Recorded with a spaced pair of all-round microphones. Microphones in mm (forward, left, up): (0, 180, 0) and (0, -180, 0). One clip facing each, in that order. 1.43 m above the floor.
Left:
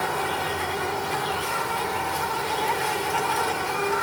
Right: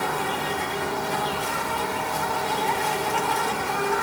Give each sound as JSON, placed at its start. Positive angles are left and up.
{"t": 0.0, "sound": "an insect", "side_deg": -60, "distance_m": 2.0}